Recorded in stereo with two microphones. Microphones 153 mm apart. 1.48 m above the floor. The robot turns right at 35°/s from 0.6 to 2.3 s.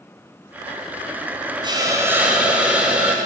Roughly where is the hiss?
Right.